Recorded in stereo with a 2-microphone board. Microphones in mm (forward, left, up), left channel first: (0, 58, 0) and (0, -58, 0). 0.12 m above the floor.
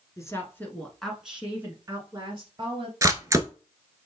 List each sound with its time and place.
0.2 s a woman speaking: 30° left (ahead or behind), 1.3 m; by 2.9 s 45° right (ahead or behind), 1.7 m
3.0 s a camera shutter: 30° right (ahead or behind), 0.6 m